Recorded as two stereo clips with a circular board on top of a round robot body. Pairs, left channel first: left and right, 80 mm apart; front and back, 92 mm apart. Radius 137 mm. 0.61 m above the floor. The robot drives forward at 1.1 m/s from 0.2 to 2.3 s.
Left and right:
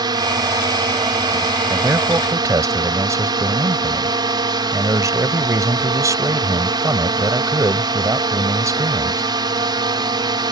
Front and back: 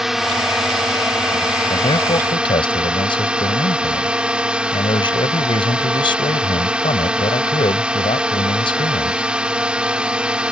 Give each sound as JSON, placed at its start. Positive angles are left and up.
{"t": 0.0, "sound": "a drone", "azimuth_deg": -95}
{"t": 1.7, "sound": "a man speaking", "azimuth_deg": -30}